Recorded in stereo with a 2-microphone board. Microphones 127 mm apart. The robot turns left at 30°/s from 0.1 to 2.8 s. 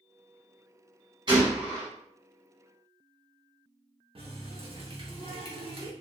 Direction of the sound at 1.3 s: 40° right (ahead or behind).